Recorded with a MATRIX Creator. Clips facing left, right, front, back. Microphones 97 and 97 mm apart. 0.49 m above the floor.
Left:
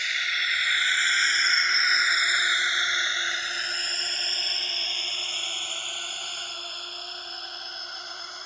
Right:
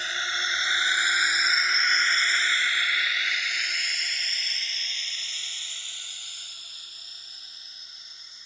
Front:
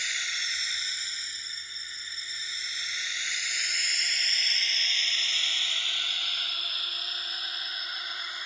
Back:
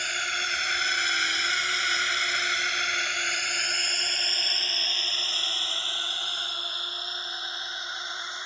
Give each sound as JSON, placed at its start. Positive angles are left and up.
{"t": 0.0, "sound": "a drone", "azimuth_deg": -145}